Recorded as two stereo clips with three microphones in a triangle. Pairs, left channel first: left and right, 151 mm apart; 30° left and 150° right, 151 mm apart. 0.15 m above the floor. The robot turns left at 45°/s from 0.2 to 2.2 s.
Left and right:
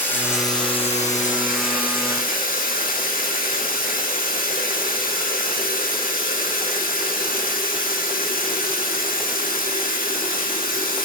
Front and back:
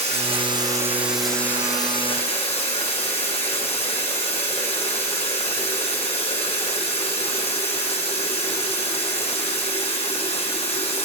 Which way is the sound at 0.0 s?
165° left.